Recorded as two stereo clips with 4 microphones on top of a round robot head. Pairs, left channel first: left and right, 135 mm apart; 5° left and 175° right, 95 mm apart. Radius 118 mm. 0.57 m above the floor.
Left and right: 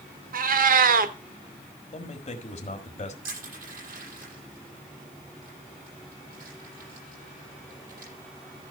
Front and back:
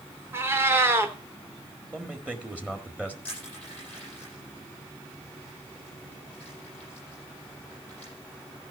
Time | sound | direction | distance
0.3 | a cat meowing | 105° right | 0.9 m
1.9 | a man speaking | 115° left | 1.8 m
3.2 | crushing | 75° right | 8.5 m